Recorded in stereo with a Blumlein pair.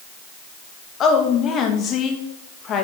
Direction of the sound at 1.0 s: 30° left.